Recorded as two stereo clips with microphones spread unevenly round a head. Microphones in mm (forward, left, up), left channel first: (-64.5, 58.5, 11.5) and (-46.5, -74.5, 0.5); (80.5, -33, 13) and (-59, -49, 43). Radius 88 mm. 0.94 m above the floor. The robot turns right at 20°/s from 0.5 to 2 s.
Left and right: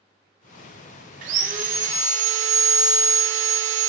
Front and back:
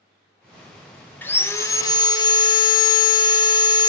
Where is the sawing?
65° right, 0.5 m; by 3.9 s 50° right, 0.5 m.